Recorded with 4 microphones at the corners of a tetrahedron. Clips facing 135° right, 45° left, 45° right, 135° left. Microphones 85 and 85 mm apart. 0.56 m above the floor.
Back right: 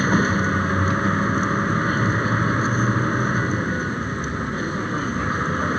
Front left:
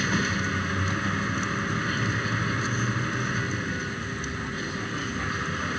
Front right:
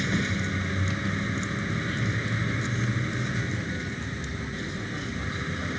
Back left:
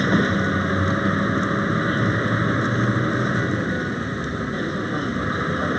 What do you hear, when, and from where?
0.0 s a vehicle: 170° left